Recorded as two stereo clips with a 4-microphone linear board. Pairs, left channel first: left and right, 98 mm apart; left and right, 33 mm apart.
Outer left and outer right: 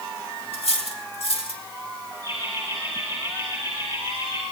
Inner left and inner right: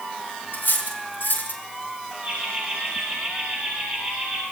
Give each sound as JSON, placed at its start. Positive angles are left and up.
{"t": 0.5, "sound": "cutlery clinking", "side_deg": 85, "distance_m": 4.5}
{"t": 2.2, "sound": "laughter", "side_deg": -55, "distance_m": 7.5}